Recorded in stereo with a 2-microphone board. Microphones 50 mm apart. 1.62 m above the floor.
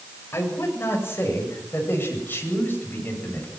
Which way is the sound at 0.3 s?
50° left (ahead or behind).